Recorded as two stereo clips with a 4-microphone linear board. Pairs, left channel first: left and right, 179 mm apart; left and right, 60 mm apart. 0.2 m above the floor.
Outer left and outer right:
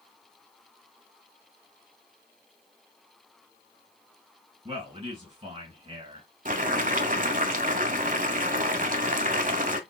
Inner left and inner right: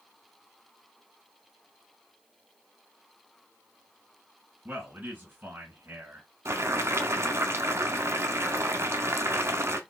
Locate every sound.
4.7 s a man speaking: 35° right (ahead or behind), 2.5 m
6.5 s boiling: 50° right (ahead or behind), 0.7 m